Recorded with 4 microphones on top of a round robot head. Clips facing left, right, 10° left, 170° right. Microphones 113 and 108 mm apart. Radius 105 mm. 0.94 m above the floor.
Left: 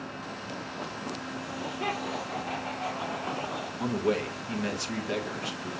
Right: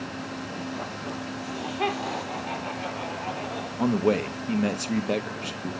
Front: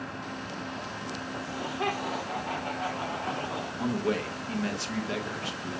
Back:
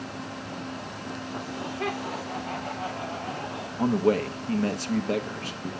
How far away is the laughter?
About 2.5 m.